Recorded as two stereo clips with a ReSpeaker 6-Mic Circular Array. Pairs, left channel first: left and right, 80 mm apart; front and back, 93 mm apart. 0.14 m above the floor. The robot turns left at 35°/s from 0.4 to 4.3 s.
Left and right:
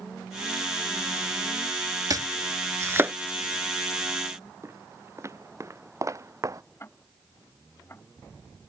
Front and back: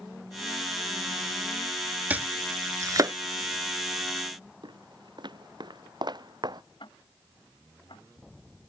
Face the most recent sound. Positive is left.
turn(degrees=30)